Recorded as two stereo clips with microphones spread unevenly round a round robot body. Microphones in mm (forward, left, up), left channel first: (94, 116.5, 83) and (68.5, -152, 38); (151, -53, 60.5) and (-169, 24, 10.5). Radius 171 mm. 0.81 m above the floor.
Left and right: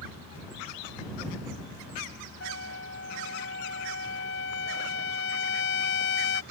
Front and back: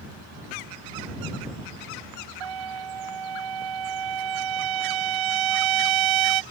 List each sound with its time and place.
2.4 s a trumpet: 145° left